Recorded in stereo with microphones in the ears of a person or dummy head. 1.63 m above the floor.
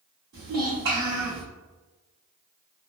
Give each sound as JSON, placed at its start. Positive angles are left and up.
{"t": 0.3, "sound": "a child speaking", "side_deg": -50, "distance_m": 1.1}